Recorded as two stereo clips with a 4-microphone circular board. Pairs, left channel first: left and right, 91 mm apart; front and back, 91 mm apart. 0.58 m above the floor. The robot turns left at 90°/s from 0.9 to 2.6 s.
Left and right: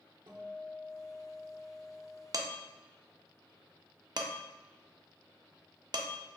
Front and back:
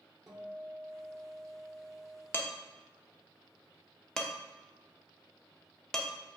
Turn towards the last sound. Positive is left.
turn(degrees=-85)